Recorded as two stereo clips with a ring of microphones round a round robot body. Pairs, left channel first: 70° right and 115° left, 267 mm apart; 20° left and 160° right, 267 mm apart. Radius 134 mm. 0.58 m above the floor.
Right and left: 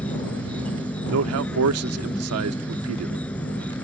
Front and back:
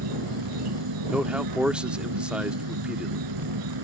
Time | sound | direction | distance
0.0 | an insect | 155° right | ?
1.1 | a man speaking | 115° left | ?